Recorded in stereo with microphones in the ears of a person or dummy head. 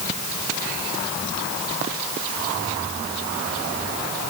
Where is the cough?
I don't hear a cough.